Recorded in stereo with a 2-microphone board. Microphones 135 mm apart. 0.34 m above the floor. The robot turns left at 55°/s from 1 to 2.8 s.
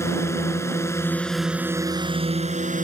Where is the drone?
20° left; by 2.8 s 80° right.